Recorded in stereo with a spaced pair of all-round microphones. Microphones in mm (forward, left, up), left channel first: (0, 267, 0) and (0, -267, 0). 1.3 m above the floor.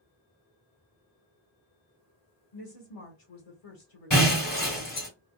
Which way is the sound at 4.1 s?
50° left (ahead or behind).